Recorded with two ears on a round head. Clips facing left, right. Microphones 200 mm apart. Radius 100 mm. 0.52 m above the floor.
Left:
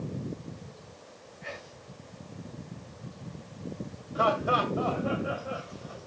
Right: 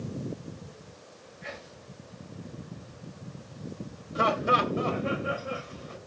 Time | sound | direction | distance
1.4 | whispering | 20° right (ahead or behind) | 6 m
4.2 | laughter | 30° right (ahead or behind) | 2 m